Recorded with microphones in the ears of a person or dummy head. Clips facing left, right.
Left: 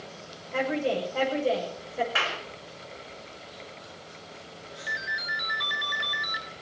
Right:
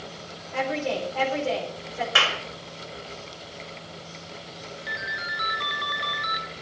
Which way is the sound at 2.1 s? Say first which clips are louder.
Right 4 dB; 50° right (ahead or behind).